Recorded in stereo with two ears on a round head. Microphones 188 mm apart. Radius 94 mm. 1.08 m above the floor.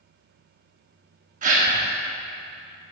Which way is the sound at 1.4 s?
40° right (ahead or behind).